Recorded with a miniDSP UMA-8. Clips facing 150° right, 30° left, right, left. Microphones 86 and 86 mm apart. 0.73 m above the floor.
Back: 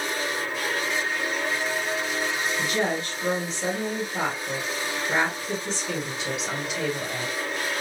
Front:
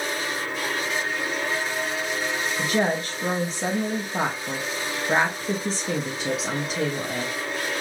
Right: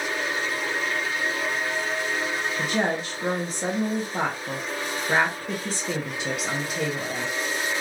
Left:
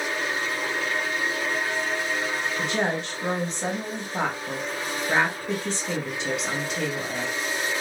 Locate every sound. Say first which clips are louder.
2.6 s a woman speaking: front 4 dB, right 1 dB; 5° right, 0.8 m